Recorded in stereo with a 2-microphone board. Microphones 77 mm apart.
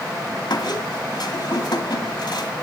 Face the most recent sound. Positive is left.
turn(degrees=70)  # may be behind; listen again after turning